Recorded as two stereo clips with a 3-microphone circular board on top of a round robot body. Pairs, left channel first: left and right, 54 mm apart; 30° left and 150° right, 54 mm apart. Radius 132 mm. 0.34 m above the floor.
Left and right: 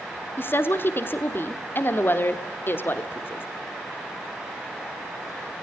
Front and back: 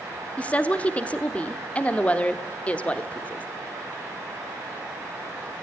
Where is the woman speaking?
80° left, 1.4 m.